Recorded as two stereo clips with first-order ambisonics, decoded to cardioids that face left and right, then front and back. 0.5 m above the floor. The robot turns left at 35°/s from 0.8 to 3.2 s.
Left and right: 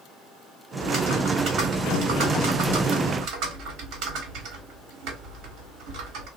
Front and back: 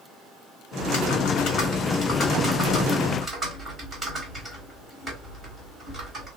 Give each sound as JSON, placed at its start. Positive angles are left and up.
{"t": 0.8, "sound": "typing on a keyboard", "azimuth_deg": -20, "distance_m": 1.3}